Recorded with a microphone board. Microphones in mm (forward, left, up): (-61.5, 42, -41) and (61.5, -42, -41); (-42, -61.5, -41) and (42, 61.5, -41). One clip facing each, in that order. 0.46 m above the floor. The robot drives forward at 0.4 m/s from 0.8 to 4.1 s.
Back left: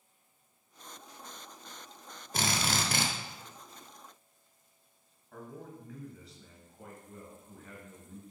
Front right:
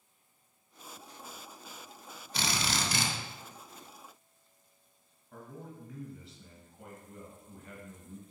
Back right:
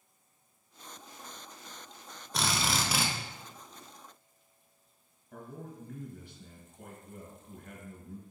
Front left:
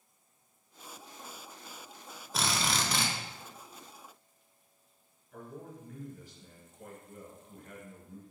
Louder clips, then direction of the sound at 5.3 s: Back left 1 dB, even; 125° right.